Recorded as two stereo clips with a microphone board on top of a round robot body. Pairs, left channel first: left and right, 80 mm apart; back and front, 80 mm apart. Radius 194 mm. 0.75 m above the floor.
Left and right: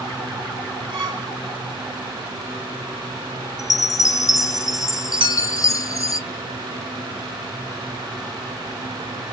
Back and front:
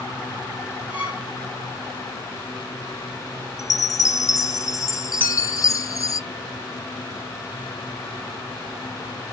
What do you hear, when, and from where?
0.9 s a violin: 75° right, 2.5 m
3.6 s a chime: 135° left, 0.6 m
5.2 s a clink: 110° right, 4.5 m